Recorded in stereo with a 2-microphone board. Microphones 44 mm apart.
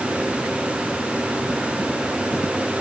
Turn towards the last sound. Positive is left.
No sound to turn to.